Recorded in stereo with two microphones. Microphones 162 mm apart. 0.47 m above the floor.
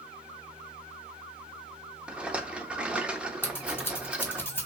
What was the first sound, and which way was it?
A rattle, 5° right (ahead or behind).